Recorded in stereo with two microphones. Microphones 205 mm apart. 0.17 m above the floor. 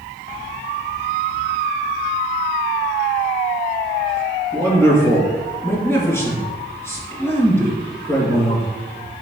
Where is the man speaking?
10° left (ahead or behind), 3 m.